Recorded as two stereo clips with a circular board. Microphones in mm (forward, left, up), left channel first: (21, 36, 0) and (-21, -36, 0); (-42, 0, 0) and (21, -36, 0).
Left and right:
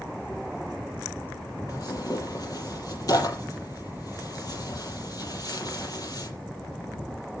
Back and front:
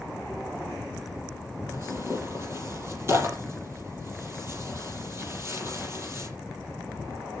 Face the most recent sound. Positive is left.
turn(degrees=20)